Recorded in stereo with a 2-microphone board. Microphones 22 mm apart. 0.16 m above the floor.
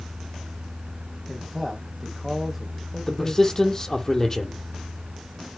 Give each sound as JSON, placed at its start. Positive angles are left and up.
{"t": 1.3, "sound": "a man speaking", "side_deg": 0, "distance_m": 10.0}
{"t": 3.1, "sound": "a man speaking", "side_deg": 20, "distance_m": 5.5}